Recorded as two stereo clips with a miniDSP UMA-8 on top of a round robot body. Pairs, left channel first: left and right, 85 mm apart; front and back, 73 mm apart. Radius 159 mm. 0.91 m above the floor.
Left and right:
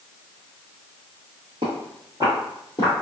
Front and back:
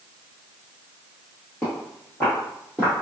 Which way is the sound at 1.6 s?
60° right.